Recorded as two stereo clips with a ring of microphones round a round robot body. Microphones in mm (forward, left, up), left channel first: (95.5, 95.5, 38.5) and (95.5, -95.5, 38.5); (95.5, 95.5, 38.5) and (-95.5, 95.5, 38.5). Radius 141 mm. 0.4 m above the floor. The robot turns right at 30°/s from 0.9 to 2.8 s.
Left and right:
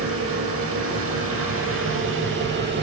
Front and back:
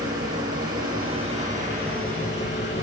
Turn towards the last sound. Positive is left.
turn(degrees=-60)